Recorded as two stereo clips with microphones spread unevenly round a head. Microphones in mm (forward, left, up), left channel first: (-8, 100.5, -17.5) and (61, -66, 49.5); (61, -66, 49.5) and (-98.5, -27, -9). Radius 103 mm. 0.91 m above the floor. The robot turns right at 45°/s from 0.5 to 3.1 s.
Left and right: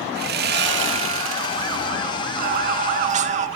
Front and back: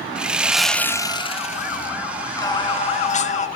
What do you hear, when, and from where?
0.1 s sawing: 105° right, 0.7 m; by 1.9 s 40° right, 0.7 m
2.4 s singing: 70° right, 1.3 m; by 3.5 s 35° right, 1.3 m